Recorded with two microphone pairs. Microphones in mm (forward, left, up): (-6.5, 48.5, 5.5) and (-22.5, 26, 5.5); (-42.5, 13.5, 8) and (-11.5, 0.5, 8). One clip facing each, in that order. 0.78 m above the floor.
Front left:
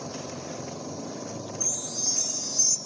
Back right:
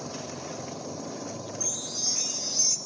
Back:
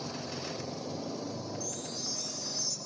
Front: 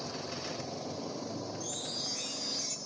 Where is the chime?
65° right, 1.7 m.